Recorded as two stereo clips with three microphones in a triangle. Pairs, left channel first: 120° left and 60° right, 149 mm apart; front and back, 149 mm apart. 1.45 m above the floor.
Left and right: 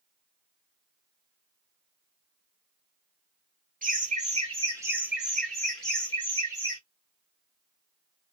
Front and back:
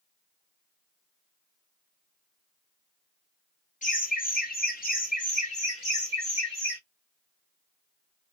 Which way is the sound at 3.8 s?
35° right.